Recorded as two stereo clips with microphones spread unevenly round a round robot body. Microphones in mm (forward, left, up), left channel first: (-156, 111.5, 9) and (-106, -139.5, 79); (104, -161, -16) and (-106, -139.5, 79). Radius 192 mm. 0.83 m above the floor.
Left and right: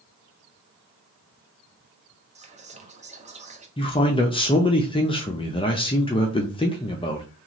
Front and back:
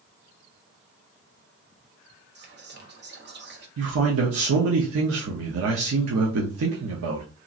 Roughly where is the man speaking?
Behind left.